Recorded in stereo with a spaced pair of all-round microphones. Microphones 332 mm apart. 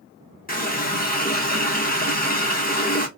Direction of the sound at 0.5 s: 25° left (ahead or behind).